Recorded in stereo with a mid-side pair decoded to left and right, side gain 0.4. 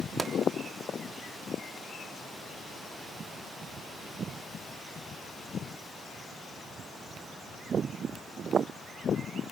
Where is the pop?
20° right, 3.5 m.